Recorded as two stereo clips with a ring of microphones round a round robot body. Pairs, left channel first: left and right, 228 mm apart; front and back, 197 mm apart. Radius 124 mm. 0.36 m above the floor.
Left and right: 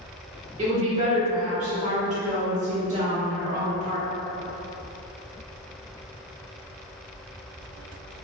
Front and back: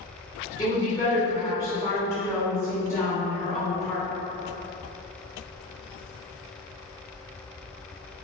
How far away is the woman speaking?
About 0.9 m.